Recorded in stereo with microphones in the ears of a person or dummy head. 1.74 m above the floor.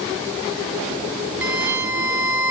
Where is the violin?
10° right (ahead or behind), 0.9 m.